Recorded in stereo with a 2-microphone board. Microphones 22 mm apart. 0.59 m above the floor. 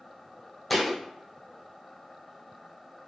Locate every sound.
0.7 s a thud: centre (ahead or behind), 0.9 m